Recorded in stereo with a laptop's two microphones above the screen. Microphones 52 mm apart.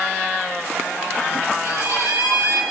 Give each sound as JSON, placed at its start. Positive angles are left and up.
{"t": 1.6, "sound": "a violin", "side_deg": -60, "distance_m": 6.5}